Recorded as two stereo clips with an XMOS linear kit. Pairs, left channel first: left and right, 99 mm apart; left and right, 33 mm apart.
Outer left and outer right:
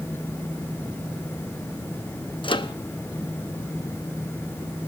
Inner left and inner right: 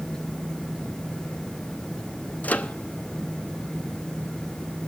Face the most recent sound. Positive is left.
turn(degrees=60)  # may be behind; listen again after turning